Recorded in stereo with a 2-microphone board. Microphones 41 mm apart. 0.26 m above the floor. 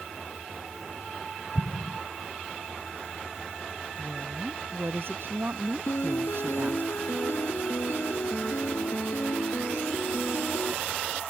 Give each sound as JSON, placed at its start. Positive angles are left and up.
{"t": 1.6, "sound": "an explosion", "side_deg": 75}
{"t": 4.0, "sound": "a woman speaking", "side_deg": -65}
{"t": 5.9, "sound": "a piano", "side_deg": 80}